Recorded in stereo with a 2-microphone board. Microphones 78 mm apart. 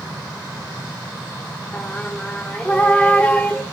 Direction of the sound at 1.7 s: 15° left (ahead or behind).